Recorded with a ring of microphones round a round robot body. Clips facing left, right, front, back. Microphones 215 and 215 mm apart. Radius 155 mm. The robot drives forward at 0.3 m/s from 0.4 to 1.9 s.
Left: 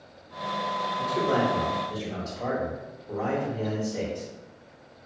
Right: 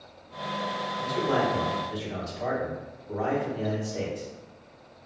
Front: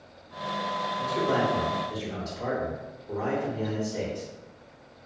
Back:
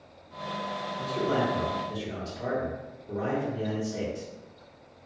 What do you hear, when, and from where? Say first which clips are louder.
1.0 s a man speaking: left 1 dB, front 1 dB; 110° left, 1.4 m; by 4.3 s 120° left, 1.5 m